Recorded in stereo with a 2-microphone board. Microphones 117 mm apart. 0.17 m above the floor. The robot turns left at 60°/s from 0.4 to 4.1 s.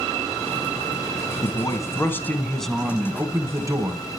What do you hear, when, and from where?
1.4 s a man speaking: 80° left, 1.4 m; by 4.0 s 80° right, 1.4 m